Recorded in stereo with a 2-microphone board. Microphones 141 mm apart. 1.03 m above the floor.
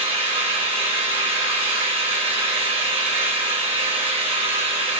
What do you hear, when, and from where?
0.0 s an engine running: 45° right (ahead or behind), 1.2 m